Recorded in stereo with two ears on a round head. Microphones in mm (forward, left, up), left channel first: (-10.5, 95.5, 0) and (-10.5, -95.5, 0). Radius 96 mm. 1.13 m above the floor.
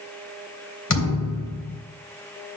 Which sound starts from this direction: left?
A thud, at 0.9 s.